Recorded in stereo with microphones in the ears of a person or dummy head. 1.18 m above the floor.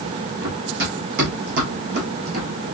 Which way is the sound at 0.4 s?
60° right (ahead or behind).